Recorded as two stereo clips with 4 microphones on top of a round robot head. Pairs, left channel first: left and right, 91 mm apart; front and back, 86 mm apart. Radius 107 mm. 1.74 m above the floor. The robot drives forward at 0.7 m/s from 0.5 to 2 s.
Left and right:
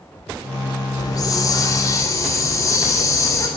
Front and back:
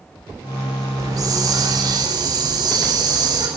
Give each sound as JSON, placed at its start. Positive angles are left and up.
{"t": 1.0, "sound": "a hiss", "azimuth_deg": 135, "distance_m": 3.5}